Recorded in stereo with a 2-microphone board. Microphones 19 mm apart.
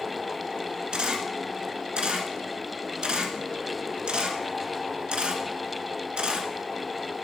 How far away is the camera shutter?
About 1.3 m.